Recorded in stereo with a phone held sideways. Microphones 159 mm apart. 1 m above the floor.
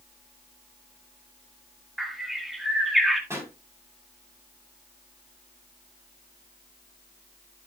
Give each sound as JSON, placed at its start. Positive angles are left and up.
{"t": 2.0, "sound": "a bird", "side_deg": 0, "distance_m": 2.0}
{"t": 3.3, "sound": "a pop", "side_deg": -15, "distance_m": 6.0}